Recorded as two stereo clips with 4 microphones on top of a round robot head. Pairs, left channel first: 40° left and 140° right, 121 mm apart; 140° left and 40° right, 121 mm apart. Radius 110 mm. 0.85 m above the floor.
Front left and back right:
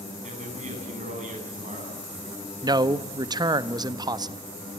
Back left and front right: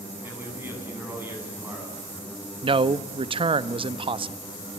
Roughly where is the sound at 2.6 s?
Right.